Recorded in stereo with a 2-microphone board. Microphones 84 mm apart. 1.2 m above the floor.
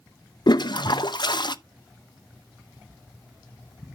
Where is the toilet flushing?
60° left (ahead or behind), 0.6 m.